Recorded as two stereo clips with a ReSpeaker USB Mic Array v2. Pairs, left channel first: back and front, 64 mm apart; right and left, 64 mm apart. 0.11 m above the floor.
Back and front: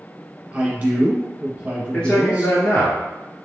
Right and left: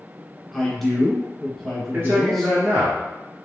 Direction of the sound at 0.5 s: 10° right.